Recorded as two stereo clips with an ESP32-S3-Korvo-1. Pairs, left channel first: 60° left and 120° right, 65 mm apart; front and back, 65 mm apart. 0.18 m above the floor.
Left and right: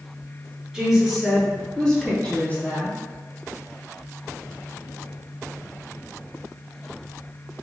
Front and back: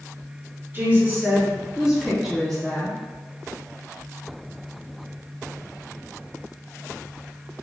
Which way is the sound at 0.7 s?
165° left.